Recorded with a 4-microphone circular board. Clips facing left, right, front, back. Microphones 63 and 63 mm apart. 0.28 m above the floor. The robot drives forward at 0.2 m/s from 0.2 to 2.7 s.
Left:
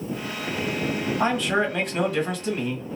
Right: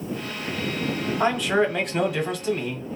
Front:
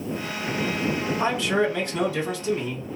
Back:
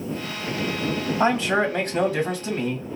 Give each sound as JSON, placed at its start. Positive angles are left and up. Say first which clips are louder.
{"t": 1.2, "sound": "a man speaking", "louder": "right 2 dB, back 3 dB", "azimuth_deg": -175, "distance_m": 1.4}